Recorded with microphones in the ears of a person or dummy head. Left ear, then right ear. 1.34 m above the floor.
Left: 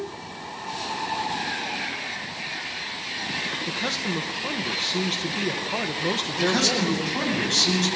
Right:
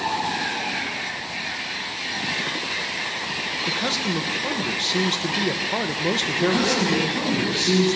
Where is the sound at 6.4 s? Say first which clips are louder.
Left 1 dB; 80° left, 9.5 m.